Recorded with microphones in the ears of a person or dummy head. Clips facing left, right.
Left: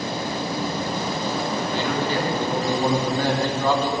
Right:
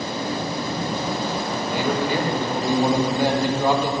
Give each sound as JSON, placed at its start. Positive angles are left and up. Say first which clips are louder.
{"t": 1.7, "sound": "a man speaking", "louder": "right 4 dB", "side_deg": -15, "distance_m": 2.0}